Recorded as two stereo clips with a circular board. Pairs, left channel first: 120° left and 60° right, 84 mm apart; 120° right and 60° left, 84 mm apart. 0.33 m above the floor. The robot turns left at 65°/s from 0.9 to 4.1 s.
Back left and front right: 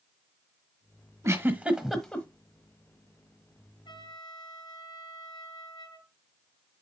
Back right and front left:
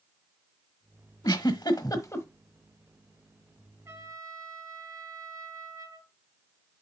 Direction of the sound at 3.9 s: 120° left.